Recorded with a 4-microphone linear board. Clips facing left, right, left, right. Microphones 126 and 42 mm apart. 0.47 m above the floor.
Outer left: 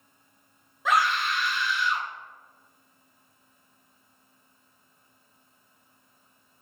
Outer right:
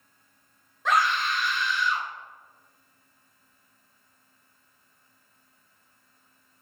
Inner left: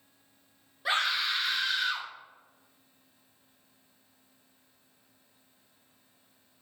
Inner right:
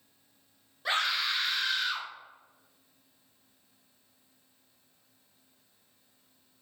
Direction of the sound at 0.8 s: 5° left (ahead or behind).